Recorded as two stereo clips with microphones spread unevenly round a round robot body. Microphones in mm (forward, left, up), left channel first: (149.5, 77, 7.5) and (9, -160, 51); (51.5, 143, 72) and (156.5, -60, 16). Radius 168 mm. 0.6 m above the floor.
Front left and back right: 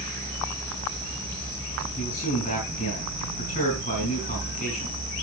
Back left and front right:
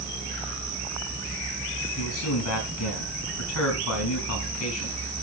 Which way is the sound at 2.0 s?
130° left.